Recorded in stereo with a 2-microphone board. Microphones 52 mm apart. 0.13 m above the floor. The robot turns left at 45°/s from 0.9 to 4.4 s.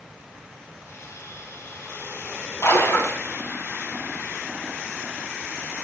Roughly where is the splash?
Left.